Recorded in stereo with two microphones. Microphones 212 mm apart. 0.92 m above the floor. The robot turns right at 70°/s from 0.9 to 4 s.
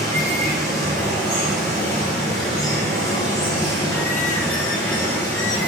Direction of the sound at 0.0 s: 45° right.